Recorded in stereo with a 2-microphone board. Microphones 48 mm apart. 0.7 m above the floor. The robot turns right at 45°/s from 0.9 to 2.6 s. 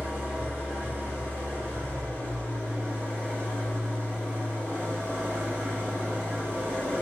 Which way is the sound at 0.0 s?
135° right.